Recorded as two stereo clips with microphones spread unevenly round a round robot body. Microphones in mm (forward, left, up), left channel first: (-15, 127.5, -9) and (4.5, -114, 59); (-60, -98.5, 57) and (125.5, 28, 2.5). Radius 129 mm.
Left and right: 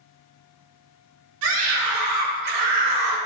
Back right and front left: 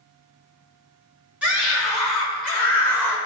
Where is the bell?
No bell in this recording.